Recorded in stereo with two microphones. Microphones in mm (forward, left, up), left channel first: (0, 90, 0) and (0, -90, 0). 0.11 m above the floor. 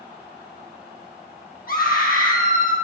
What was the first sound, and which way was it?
A scream, 55° left (ahead or behind).